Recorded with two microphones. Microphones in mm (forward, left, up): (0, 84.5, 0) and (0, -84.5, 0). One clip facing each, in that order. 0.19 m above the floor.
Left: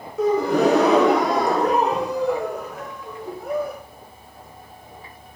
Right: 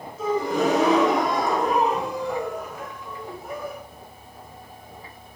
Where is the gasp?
70° left (ahead or behind), 4.5 m.